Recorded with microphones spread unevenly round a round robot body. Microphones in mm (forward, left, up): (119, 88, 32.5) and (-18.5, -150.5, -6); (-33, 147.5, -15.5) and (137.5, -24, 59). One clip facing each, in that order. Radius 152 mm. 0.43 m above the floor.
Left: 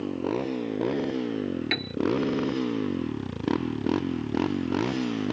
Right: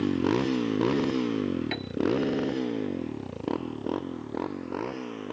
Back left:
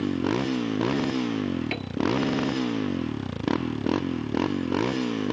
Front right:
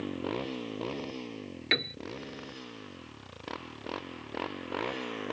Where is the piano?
15° left.